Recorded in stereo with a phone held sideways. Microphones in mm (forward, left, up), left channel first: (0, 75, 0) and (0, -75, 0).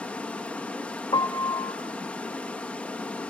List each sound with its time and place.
0.0 s running water: 10° left (ahead or behind), 1.2 m
1.1 s a piano: 35° left (ahead or behind), 1.0 m